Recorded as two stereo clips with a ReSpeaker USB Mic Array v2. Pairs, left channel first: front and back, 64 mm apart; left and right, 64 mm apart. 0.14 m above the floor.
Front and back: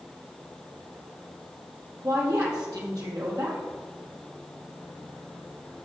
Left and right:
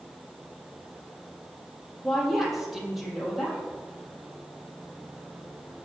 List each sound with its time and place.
2.0 s a woman speaking: straight behind, 4 m